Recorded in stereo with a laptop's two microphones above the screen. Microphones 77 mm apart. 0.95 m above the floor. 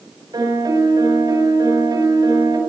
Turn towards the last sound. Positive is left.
turn(degrees=-65)  # may be behind; listen again after turning